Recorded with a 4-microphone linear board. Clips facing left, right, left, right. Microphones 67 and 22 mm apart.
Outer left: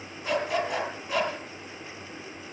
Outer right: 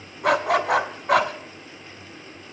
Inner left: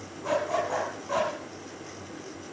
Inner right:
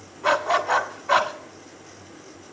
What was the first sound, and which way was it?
A dog barking, 70° right (ahead or behind).